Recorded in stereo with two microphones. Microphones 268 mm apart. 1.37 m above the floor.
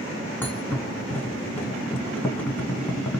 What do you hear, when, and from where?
0.4 s a thud: 5° left (ahead or behind), 1.4 m